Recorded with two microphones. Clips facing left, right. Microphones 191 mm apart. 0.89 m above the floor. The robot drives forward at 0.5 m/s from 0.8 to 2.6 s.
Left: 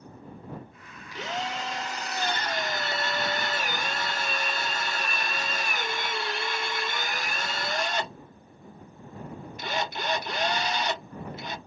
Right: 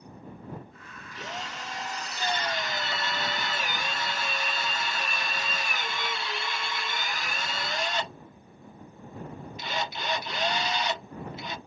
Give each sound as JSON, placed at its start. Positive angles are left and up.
{"t": 1.1, "sound": "a drill", "side_deg": 80, "distance_m": 0.7}